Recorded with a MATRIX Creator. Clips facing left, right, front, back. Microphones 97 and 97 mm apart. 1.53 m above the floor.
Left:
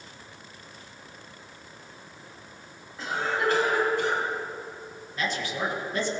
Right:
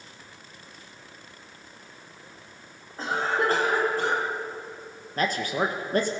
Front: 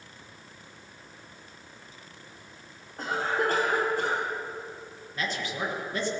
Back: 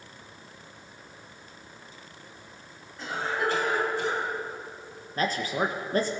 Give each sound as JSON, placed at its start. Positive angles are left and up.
{"t": 3.0, "sound": "a cough", "azimuth_deg": -40, "distance_m": 5.0}
{"t": 5.2, "sound": "a man speaking", "azimuth_deg": -135, "distance_m": 1.3}